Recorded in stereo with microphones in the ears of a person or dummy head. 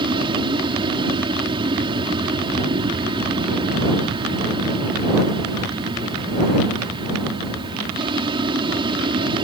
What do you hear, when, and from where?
0.0 s an aircraft: 25° right (ahead or behind)